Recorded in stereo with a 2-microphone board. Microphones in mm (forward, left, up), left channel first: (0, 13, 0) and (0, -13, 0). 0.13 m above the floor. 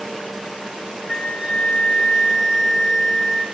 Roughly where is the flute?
Left.